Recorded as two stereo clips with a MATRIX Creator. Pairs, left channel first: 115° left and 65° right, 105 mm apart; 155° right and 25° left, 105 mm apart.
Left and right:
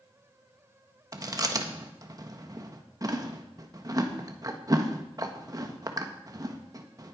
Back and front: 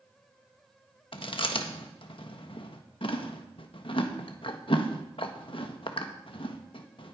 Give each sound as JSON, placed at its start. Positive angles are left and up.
{"t": 1.1, "sound": "chewing", "azimuth_deg": -125, "distance_m": 1.2}